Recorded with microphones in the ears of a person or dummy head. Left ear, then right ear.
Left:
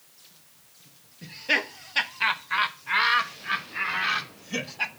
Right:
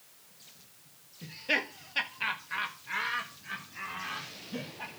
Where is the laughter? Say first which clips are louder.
Left 5 dB; 10° left (ahead or behind), 1.5 m; by 4.9 s 75° left (ahead or behind), 2.0 m.